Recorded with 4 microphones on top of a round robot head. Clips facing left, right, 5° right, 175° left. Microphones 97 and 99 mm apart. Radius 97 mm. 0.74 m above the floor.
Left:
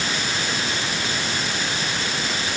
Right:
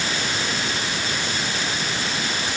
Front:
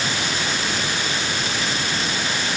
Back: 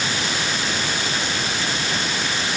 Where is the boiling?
I don't hear boiling.